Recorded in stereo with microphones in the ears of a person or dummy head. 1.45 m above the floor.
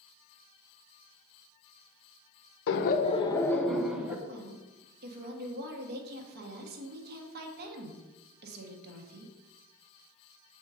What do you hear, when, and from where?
2.7 s laughter: 60° left (ahead or behind), 0.6 m; by 4.2 s 5° right (ahead or behind), 1.2 m
4.2 s a woman speaking: 55° right (ahead or behind), 1.3 m